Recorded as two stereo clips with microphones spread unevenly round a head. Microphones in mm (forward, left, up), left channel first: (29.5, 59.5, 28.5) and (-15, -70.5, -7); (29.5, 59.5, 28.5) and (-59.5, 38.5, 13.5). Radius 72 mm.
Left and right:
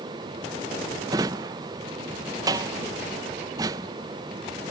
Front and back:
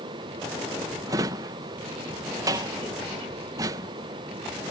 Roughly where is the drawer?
Behind.